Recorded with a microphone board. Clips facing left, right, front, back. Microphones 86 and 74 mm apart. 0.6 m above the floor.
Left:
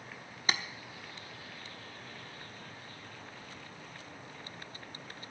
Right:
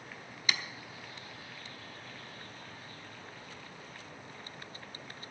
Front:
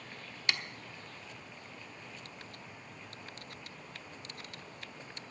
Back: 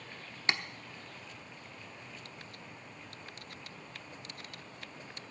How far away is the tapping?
About 0.9 m.